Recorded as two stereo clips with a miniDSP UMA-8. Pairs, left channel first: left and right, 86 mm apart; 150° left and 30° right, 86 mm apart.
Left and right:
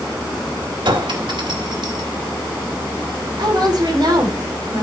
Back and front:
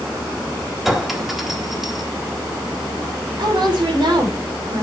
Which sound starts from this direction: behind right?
A clink, at 0.8 s.